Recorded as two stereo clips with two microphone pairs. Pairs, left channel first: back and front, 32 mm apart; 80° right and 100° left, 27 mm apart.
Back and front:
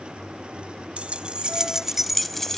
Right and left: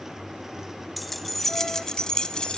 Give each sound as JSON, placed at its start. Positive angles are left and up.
{"t": 1.0, "sound": "keys jangling", "azimuth_deg": 10, "distance_m": 0.9}